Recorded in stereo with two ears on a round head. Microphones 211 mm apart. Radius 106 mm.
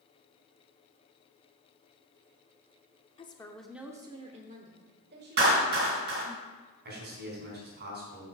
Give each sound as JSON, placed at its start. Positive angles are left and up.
{"t": 3.2, "sound": "a woman speaking", "side_deg": 25, "distance_m": 0.9}
{"t": 5.4, "sound": "a clap", "side_deg": -50, "distance_m": 4.0}
{"t": 6.8, "sound": "a man speaking", "side_deg": -45, "distance_m": 4.5}